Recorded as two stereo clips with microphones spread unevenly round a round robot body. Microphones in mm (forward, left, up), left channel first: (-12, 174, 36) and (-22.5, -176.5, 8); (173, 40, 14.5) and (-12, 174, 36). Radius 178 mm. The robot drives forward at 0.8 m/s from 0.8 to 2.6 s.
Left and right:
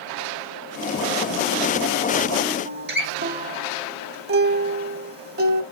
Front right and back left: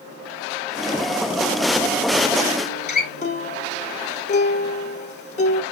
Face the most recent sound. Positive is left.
turn(degrees=-55)